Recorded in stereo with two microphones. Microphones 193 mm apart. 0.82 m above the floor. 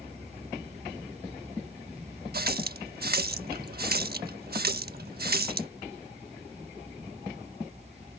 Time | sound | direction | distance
2.3 | a running tap | 55° right (ahead or behind) | ?